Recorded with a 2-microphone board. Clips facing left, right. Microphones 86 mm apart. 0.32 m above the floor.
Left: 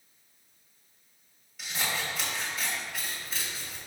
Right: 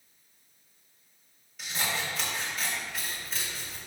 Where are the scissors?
Centre (ahead or behind), 1.5 m.